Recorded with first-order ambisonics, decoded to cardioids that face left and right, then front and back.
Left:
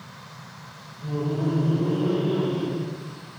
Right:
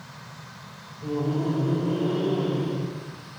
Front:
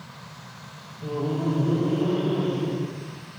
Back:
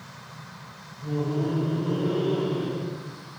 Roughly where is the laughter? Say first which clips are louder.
Right 1 dB, front 1 dB; ahead right.